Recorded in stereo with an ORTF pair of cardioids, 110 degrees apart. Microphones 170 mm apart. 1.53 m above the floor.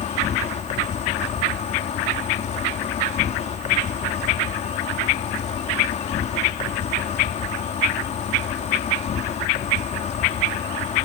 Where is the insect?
40° left.